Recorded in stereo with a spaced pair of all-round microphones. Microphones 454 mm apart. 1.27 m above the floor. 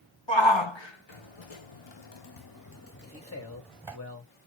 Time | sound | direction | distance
0.3 | a shout | 65° left (ahead or behind) | 1.3 m
3.0 | a man speaking | 30° left (ahead or behind) | 1.8 m